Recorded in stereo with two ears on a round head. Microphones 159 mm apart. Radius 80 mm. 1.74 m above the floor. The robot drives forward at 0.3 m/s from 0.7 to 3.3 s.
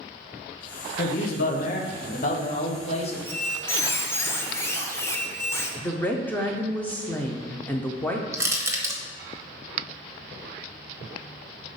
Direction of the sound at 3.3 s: 15° left (ahead or behind).